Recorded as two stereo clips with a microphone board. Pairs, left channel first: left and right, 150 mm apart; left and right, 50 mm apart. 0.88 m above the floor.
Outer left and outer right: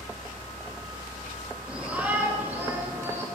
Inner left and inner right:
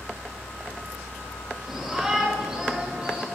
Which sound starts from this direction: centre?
A shout, at 1.7 s.